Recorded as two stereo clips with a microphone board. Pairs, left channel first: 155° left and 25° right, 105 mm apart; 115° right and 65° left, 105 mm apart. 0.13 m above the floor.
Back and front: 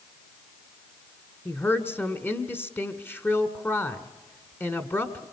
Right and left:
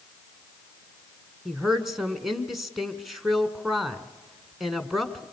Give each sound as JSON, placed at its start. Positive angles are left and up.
{"t": 1.4, "sound": "a woman speaking", "azimuth_deg": 155, "distance_m": 1.4}